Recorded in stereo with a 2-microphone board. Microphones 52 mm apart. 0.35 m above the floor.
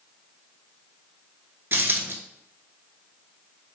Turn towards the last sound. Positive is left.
turn(degrees=-45)  # may be behind; listen again after turning